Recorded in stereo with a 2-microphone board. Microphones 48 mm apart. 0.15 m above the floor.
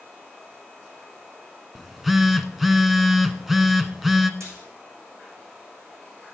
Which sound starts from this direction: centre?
A phone buzzing, at 1.8 s.